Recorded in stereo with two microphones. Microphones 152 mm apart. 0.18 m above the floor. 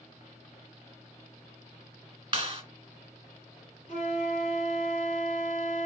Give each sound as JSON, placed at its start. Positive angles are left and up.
{"t": 2.3, "sound": "a clap", "side_deg": -30, "distance_m": 1.5}
{"t": 3.9, "sound": "a flute", "side_deg": 45, "distance_m": 1.9}